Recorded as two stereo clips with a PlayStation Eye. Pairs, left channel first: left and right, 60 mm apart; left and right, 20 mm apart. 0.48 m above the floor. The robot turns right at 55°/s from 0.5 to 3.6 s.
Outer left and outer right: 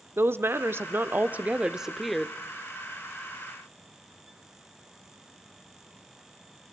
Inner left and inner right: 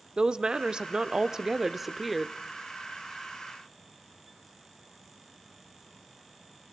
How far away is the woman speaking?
About 0.9 m.